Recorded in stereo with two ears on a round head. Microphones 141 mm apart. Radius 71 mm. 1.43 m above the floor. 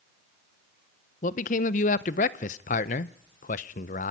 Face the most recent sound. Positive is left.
turn(degrees=50)  # may be behind; listen again after turning